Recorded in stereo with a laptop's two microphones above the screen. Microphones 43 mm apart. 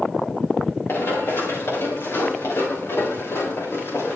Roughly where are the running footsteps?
Left.